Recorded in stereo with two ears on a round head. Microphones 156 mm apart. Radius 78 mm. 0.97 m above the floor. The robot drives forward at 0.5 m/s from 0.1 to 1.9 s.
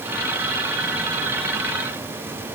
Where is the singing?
I don't hear singing.